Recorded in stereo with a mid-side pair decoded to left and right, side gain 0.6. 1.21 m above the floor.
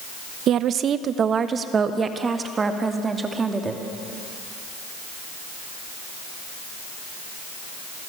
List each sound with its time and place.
0.5 s a woman speaking: 55° right, 1.0 m; by 3.8 s 20° right, 2.5 m